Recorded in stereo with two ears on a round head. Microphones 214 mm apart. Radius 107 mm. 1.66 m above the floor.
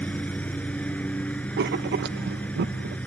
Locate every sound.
0.0 s a lawn mower: 5° left (ahead or behind)
1.6 s writing: 45° right (ahead or behind)